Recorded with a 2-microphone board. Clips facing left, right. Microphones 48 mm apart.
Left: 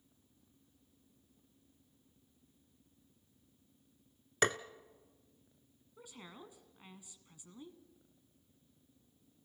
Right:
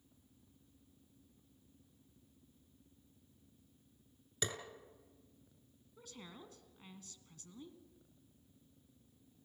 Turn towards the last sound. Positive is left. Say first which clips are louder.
# left 1 dB
turn(degrees=15)  # may be behind; listen again after turning